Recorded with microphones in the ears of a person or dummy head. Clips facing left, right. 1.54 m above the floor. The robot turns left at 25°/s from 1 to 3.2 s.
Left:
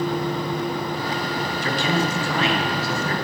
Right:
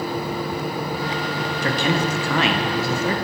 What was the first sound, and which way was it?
A man speaking, 55° right.